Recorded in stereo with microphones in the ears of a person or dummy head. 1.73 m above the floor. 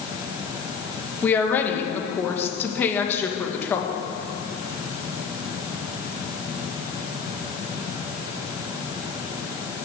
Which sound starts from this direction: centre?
A woman speaking, at 1.2 s.